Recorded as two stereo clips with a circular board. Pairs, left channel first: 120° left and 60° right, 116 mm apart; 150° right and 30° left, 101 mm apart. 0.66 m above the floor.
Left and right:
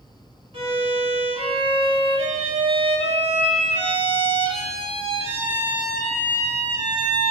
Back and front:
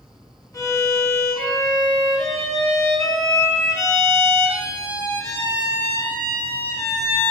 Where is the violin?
90° right, 0.9 m.